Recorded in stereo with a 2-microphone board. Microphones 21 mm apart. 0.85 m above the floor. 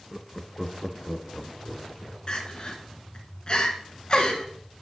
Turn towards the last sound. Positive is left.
turn(degrees=40)  # may be behind; listen again after turning